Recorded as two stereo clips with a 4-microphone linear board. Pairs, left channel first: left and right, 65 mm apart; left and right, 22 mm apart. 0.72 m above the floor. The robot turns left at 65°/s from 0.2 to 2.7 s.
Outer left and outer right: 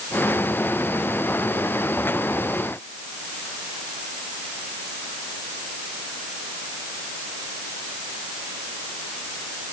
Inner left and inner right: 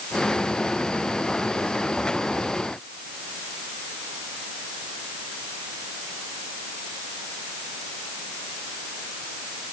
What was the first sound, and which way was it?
Only background noise.